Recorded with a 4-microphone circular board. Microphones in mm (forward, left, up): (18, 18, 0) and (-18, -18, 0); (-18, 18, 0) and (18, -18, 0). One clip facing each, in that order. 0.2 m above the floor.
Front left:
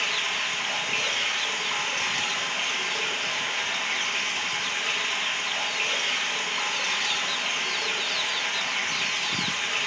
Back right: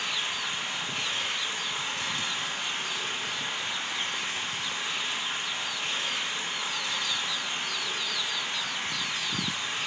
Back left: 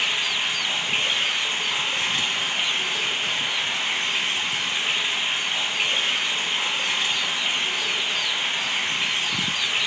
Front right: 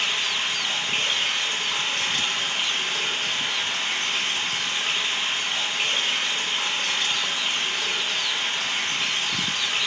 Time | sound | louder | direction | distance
0.0 | running water | front left 4 dB, back left 1 dB | 65° left | 1.0 m